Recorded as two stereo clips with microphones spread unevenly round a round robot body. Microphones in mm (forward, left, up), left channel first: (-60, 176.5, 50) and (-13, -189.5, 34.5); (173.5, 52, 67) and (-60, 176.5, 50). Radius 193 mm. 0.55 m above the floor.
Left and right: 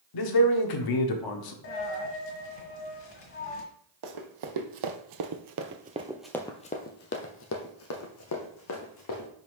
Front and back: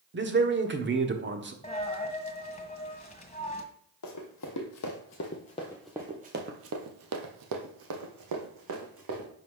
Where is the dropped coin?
40° left, 1.6 m.